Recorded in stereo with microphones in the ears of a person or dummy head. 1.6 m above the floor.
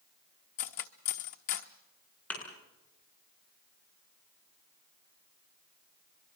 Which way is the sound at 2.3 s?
10° left (ahead or behind).